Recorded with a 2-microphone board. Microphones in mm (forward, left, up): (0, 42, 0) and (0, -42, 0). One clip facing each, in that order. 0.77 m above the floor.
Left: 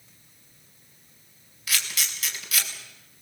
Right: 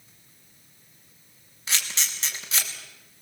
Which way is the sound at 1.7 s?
30° right (ahead or behind).